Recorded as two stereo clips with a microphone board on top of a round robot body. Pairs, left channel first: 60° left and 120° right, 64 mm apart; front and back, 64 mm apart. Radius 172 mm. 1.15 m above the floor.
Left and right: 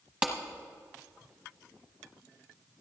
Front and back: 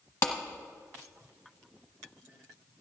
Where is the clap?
50° right, 1.0 m.